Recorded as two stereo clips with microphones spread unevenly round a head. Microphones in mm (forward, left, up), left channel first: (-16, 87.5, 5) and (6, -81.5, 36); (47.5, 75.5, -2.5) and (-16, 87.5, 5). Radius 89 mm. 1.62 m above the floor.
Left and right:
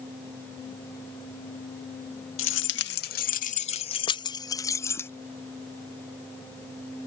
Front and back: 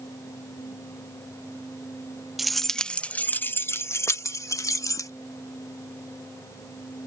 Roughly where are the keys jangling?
Left.